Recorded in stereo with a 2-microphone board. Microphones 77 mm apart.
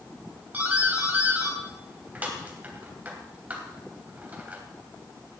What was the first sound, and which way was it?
A doorbell, 20° right (ahead or behind).